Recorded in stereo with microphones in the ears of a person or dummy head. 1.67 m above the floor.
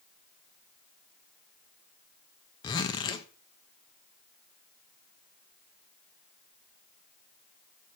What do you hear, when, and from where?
2.6 s a zipper: 25° left (ahead or behind), 1.0 m